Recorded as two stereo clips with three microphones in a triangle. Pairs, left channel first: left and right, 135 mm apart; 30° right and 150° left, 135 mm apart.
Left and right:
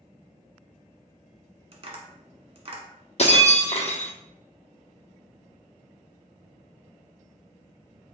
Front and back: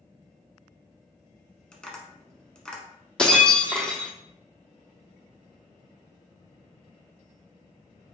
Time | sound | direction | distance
1.7 | tapping | 115° right | 1.2 m
3.2 | breaking glass | 50° left | 1.0 m